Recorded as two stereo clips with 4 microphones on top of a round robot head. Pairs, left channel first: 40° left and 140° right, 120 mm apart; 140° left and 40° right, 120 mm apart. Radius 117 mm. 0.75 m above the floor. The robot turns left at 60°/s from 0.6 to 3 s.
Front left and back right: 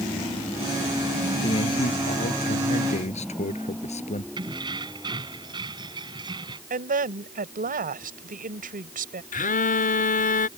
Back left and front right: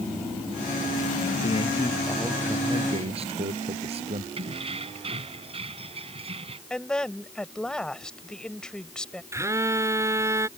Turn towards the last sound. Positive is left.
turn(degrees=30)